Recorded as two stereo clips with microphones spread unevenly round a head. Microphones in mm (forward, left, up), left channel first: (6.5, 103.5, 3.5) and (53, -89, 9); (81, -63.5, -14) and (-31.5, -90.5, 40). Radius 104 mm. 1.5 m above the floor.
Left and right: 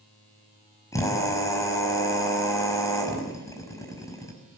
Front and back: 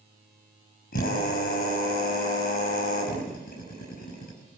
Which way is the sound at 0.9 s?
30° left.